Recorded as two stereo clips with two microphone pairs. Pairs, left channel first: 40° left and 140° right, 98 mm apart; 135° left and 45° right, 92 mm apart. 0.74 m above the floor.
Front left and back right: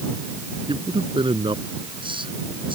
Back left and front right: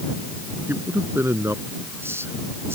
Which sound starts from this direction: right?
A man speaking, at 0.7 s.